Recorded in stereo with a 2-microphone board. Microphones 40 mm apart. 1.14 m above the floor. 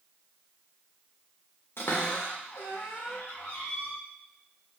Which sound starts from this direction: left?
A cupboard door, at 1.8 s.